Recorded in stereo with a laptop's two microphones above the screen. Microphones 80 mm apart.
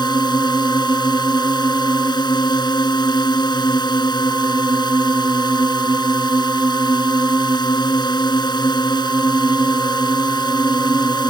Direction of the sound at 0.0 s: 65° left (ahead or behind).